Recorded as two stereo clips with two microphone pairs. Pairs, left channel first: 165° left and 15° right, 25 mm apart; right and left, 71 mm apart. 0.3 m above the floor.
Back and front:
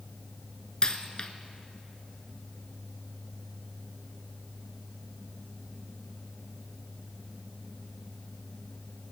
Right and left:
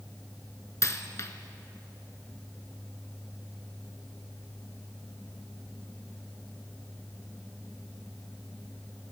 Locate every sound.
0.8 s a dropped coin: 135° right, 0.7 m